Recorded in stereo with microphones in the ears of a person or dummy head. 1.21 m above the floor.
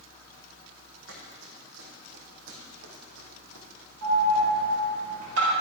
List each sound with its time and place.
1.1 s running footsteps: 70° right (ahead or behind), 4 m; by 3.7 s 65° right (ahead or behind), 3 m
4.0 s an alarm: 70° right (ahead or behind), 4.5 m